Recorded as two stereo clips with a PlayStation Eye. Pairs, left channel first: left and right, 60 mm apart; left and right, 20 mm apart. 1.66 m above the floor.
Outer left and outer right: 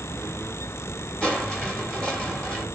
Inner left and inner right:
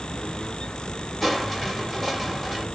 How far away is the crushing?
About 1.5 m.